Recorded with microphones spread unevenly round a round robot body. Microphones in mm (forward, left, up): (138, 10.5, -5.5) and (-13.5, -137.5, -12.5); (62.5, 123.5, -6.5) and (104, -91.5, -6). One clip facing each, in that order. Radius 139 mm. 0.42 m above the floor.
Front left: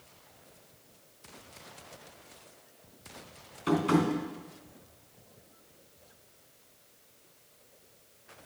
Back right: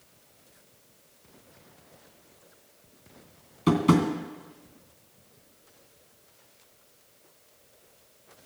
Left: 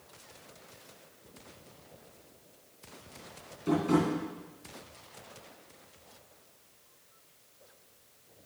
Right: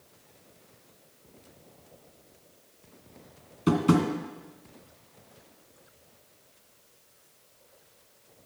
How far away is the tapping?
About 2.5 m.